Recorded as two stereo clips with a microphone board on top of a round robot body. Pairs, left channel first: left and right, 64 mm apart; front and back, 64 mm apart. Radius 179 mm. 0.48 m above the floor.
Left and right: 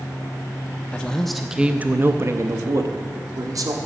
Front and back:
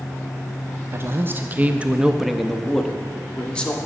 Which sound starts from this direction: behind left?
A man speaking, at 0.9 s.